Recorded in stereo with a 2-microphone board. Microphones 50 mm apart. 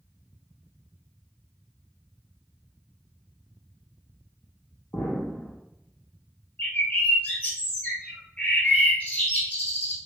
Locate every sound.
4.9 s an explosion: 65° left (ahead or behind), 1.2 m
6.6 s a bird: 25° left (ahead or behind), 1.4 m